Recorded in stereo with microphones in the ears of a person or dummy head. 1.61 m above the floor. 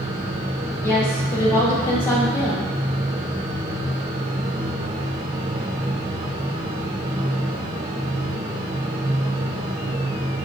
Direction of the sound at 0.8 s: 15° left (ahead or behind).